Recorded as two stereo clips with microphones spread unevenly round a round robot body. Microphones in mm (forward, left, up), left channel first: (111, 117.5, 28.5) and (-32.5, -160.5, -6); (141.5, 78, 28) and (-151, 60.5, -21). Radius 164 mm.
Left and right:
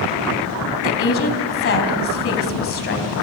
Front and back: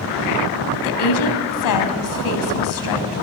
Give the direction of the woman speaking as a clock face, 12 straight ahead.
12 o'clock.